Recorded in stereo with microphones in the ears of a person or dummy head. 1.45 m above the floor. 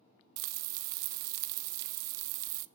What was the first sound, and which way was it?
Frying, 55° right (ahead or behind).